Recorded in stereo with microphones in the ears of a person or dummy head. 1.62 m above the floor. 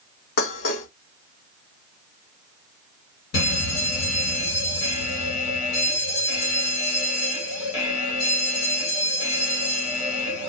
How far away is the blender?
I don't hear a blender.